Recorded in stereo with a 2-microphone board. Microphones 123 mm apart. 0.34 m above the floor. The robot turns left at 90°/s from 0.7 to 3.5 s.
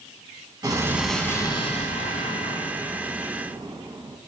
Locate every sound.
0.6 s an explosion: 145° right, 1.0 m; by 4.2 s 35° right, 1.0 m